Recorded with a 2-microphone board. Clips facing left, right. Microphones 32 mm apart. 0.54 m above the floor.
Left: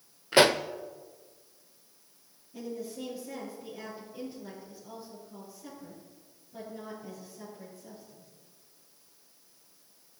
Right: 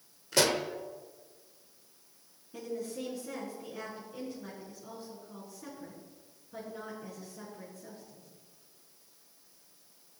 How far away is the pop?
About 0.5 m.